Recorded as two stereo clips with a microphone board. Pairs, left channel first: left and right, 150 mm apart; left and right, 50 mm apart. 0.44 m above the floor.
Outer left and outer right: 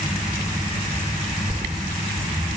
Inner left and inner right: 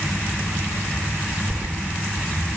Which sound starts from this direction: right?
Keys jangling, at 1.5 s.